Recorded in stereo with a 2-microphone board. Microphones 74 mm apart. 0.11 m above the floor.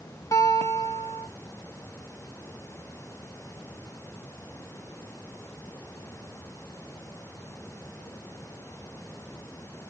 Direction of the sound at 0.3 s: 50° left (ahead or behind).